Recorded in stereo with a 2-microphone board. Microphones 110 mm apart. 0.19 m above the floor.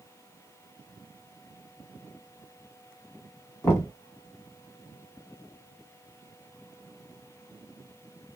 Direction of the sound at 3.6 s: 25° left (ahead or behind).